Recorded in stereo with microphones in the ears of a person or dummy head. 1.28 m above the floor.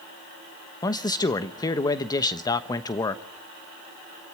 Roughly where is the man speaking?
Left.